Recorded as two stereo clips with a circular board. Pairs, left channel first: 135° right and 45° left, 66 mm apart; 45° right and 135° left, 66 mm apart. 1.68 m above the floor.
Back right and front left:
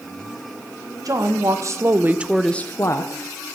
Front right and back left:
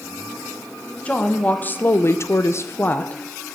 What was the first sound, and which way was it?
A woman speaking, 25° left.